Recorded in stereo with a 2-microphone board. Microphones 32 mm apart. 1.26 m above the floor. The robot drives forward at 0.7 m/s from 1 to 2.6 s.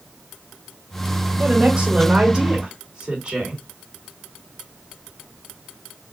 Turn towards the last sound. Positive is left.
turn(degrees=-30)  # may be behind; listen again after turning